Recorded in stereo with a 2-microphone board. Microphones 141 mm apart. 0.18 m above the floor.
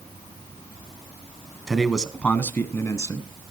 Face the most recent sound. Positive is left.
turn(degrees=25)  # may be behind; listen again after turning